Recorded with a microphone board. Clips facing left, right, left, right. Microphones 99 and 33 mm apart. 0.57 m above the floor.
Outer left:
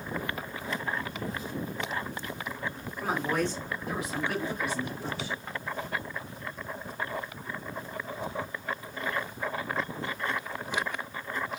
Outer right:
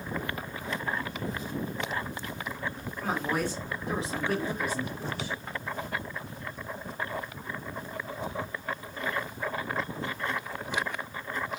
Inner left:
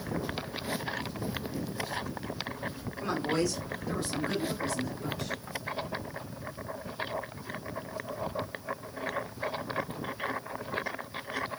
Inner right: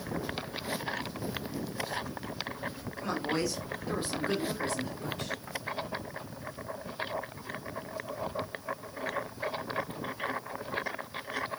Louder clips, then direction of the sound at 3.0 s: Outer left 1 dB, inner left 2 dB; 10° left (ahead or behind).